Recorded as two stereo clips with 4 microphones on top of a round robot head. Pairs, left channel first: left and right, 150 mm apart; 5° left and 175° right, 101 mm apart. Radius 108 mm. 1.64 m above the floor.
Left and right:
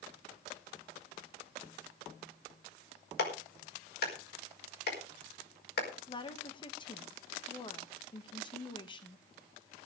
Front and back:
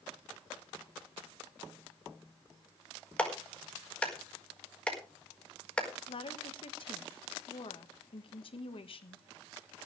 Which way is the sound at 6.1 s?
30° left.